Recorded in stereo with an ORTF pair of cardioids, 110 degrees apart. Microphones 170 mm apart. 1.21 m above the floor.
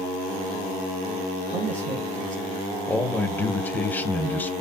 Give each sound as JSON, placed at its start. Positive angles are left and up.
{"t": 1.5, "sound": "a man speaking", "azimuth_deg": -50, "distance_m": 0.7}
{"t": 2.9, "sound": "a man speaking", "azimuth_deg": 10, "distance_m": 0.8}